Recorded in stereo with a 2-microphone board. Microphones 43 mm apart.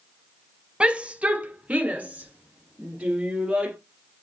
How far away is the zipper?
No zipper in this recording.